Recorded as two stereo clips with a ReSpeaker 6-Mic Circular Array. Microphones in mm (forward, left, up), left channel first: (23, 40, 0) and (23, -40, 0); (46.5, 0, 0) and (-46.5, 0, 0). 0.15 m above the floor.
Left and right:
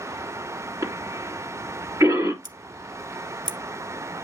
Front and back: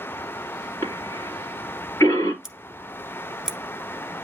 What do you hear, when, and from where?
0.8 s a cough: 55° right, 3 m
2.4 s scissors: 95° right, 1.4 m